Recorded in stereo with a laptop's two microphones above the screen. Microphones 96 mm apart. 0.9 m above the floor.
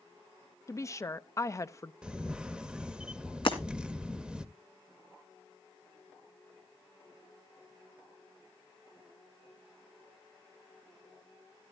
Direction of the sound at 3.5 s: 60° left (ahead or behind).